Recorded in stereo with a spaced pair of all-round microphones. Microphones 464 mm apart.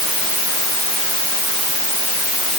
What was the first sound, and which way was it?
Only background noise.